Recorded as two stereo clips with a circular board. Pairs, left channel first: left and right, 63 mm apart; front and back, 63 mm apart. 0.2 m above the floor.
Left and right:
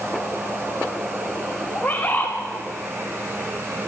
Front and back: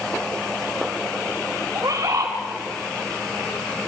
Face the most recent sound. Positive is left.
turn(degrees=160)